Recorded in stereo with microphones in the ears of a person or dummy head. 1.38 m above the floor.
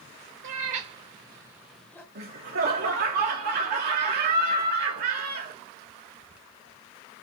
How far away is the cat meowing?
About 0.9 m.